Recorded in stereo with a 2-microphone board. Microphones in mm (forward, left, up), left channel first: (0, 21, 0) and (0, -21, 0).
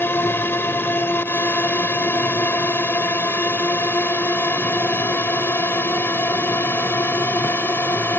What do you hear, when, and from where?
0.0 s a drone: 60° left (ahead or behind); by 8.2 s 65° left (ahead or behind)